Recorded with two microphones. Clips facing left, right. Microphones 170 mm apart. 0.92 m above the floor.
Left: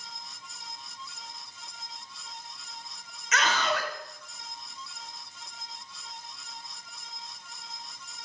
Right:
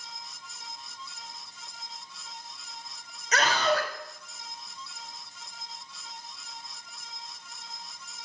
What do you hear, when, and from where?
3.3 s a scream: 40° right (ahead or behind), 4.5 m